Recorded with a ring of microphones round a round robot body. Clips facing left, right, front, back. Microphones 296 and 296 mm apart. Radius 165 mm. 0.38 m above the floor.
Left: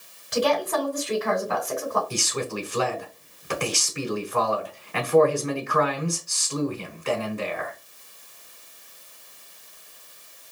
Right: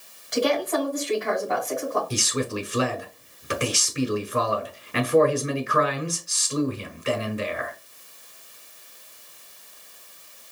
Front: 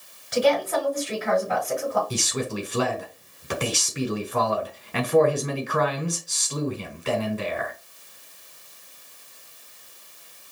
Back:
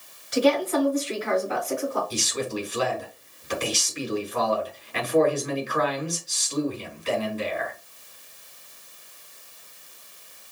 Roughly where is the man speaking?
Ahead.